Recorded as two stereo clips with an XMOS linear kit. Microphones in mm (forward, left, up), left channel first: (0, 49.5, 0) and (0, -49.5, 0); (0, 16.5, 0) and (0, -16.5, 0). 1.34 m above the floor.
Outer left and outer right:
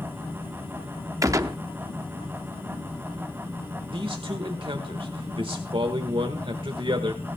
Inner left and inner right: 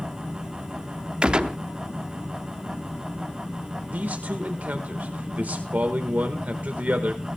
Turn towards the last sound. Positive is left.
turn(degrees=-65)  # may be behind; listen again after turning